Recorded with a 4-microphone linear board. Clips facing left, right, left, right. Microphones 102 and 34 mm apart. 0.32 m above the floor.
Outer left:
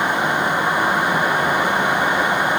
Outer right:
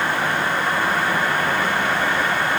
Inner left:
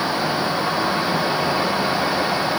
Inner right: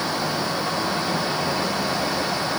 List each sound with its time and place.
Only background noise.